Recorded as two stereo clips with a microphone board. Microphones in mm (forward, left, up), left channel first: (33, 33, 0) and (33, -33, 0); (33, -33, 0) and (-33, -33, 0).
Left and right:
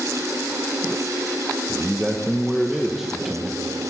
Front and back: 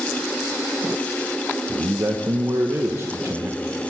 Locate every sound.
1.7 s a man speaking: 175° right, 0.7 m